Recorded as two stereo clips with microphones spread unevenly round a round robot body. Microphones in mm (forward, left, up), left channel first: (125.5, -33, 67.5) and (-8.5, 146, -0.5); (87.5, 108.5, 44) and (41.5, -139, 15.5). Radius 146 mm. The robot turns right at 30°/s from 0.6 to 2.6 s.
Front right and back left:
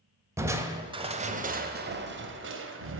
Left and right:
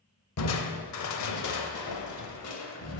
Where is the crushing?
55° left, 0.8 m; by 3.0 s 115° left, 0.8 m.